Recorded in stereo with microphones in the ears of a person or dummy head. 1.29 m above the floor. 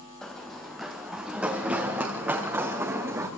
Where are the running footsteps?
Centre (ahead or behind), 2.5 m; by 3.3 s 15° right (ahead or behind), 4.5 m.